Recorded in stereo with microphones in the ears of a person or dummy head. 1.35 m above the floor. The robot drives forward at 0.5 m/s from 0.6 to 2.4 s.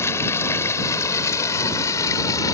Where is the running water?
20° left (ahead or behind); by 2.5 s 25° left (ahead or behind).